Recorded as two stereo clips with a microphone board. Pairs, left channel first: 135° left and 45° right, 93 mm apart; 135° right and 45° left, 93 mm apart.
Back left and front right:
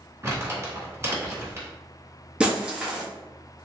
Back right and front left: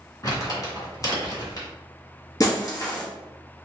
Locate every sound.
0.2 s crumpling: 100° right, 1.8 m
2.4 s breaking glass: 120° right, 0.8 m